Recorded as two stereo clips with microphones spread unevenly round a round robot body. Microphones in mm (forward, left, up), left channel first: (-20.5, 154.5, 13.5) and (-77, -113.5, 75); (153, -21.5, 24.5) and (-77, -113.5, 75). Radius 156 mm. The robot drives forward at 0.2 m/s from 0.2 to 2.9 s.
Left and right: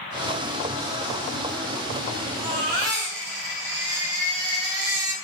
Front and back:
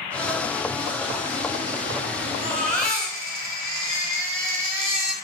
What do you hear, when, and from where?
2.4 s a baby crying: 105° right, 4 m